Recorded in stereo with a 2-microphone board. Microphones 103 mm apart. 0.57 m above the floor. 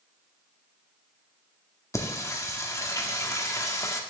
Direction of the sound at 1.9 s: 30° left (ahead or behind).